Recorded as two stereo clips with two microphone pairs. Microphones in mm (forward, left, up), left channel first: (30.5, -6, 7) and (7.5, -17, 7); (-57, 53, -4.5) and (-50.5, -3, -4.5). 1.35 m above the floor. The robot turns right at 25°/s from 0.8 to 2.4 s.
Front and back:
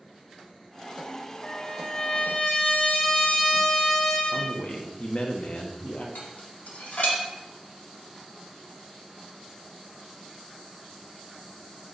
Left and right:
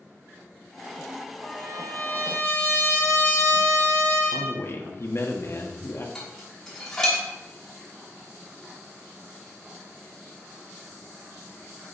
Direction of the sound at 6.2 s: 15° left.